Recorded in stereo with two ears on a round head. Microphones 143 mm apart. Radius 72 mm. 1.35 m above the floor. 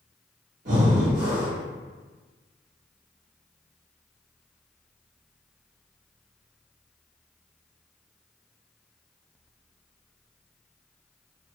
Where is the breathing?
50° right (ahead or behind), 1.4 m.